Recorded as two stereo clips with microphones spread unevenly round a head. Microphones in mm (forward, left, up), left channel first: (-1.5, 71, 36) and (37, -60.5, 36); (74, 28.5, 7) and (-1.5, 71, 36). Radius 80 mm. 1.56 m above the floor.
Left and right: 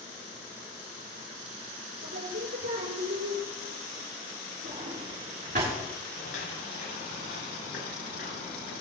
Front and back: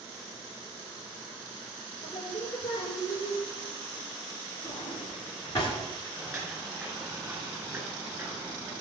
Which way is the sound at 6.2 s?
95° left.